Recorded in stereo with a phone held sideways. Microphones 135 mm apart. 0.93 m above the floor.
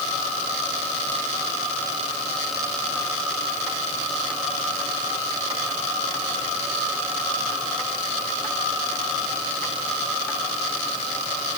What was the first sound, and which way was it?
Only background noise.